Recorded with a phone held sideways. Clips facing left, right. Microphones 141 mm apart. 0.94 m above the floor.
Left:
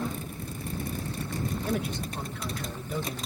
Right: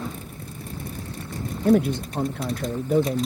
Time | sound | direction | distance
1.6 | a man speaking | 50° right (ahead or behind) | ?